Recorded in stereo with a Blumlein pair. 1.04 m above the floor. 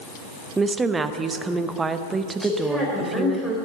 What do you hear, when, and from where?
0.6 s a woman speaking: 15° right, 0.7 m
2.4 s a woman speaking: 5° right, 4 m